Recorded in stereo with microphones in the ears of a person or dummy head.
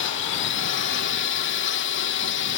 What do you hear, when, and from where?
0.0 s a drone: 60° left (ahead or behind)